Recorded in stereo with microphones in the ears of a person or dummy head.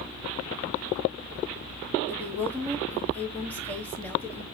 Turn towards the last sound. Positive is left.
turn(degrees=15)  # may be behind; listen again after turning